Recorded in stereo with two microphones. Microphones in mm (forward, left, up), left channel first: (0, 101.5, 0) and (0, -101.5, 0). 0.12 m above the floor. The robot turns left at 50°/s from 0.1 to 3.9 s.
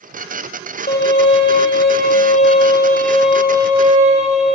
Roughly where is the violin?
Behind left.